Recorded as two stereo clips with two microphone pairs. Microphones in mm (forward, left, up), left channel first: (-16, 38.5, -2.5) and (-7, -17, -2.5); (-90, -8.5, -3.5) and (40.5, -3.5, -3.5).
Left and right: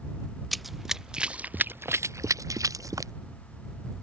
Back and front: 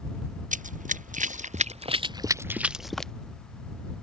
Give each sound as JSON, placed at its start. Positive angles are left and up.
{"t": 0.5, "sound": "running footsteps", "azimuth_deg": 10}